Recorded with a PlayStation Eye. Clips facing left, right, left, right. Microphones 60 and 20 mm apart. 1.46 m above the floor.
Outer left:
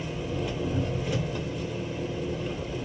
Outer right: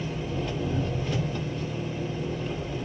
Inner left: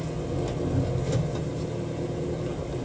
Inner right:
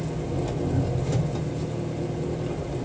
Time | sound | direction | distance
0.0 | an engine running | 5° left (ahead or behind) | 1.2 m